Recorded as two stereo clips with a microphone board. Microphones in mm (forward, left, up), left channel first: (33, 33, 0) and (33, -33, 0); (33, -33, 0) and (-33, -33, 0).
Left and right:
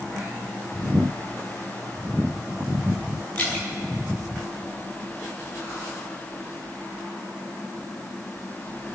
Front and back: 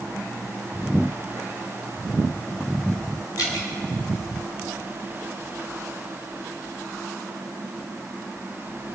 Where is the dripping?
25° left, 5 m.